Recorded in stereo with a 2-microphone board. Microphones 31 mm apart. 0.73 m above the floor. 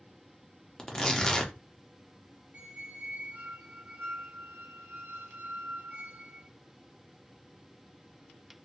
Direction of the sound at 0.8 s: 20° left (ahead or behind).